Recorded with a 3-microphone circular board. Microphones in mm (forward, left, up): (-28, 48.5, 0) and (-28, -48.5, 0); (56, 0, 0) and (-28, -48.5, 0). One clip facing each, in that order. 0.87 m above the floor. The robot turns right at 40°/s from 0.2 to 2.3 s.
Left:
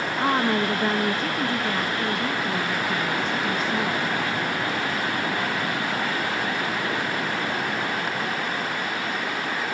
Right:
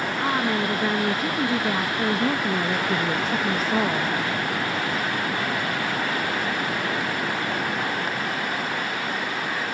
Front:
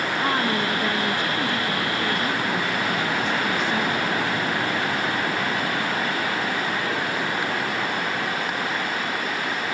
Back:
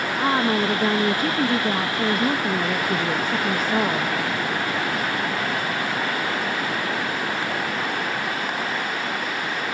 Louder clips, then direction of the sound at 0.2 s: Left 3 dB, back 4 dB; 150° left.